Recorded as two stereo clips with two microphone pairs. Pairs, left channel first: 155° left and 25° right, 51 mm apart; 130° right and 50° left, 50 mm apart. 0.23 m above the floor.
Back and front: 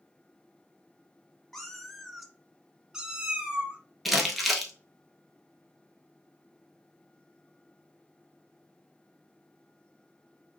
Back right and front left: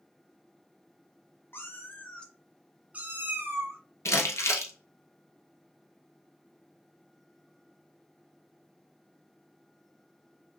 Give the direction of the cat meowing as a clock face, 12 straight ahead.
4 o'clock.